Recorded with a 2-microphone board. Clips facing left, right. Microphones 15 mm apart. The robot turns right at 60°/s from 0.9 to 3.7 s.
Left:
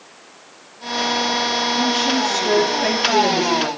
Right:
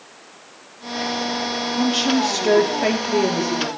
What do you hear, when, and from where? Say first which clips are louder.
1.8 s a woman speaking: right 3 dB; 100° right, 2.5 m; by 3.7 s 15° left, 2.5 m